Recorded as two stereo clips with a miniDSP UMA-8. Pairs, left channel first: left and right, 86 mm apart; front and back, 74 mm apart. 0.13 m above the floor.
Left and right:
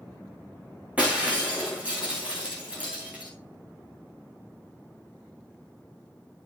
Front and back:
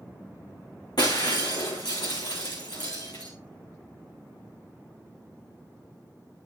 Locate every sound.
1.0 s breaking glass: 15° right, 5 m